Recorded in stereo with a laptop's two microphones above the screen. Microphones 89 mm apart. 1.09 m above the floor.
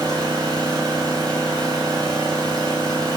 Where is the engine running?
45° right (ahead or behind), 3.5 m.